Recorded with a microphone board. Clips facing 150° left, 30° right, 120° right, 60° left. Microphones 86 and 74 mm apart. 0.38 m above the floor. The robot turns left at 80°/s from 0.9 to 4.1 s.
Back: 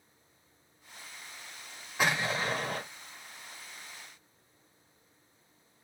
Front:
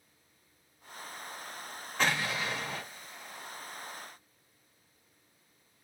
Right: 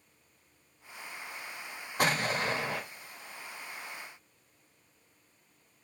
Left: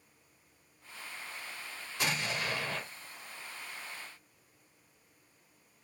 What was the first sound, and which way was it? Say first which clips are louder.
An explosion: back 1 dB, right 6 dB; 135° right.